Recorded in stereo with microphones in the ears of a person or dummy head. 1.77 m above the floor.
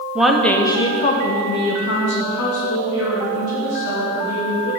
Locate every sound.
0.1 s a woman speaking: 10° right (ahead or behind), 1.1 m; by 4.7 s 80° left, 4.5 m